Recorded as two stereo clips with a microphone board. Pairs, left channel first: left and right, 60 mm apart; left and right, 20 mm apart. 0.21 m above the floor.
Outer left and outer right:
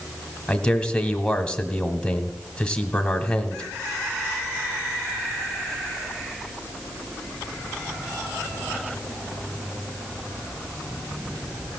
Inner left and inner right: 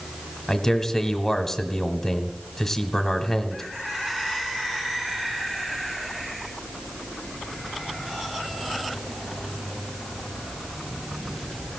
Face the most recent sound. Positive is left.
turn(degrees=15)  # may be behind; listen again after turning